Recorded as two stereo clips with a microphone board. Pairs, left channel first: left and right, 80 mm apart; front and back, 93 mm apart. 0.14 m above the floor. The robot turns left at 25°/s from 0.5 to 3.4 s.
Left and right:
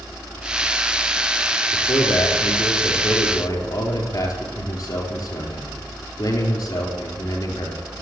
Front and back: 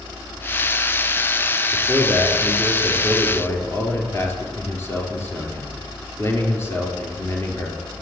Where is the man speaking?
100° left, 3.5 m; by 7.8 s 55° left, 3.5 m.